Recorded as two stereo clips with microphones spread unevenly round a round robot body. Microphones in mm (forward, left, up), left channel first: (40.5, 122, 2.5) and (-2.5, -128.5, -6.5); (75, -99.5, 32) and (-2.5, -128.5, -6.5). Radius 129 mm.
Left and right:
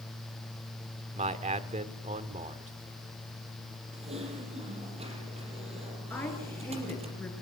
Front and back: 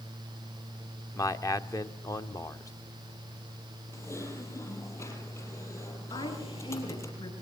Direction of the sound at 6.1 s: Straight ahead.